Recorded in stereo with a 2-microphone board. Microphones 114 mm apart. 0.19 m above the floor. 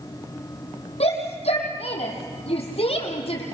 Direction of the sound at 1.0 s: 65° left (ahead or behind).